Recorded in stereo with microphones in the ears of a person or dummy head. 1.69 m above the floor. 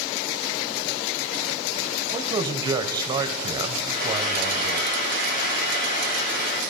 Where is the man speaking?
20° right (ahead or behind), 1.0 m.